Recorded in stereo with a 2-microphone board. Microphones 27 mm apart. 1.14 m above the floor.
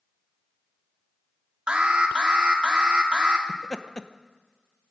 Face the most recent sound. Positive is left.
turn(degrees=30)  # may be behind; listen again after turning